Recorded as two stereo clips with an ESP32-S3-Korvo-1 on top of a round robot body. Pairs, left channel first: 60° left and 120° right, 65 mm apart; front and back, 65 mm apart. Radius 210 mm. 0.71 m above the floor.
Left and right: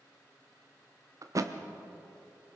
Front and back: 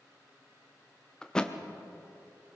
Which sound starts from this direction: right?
A thud, at 1.2 s.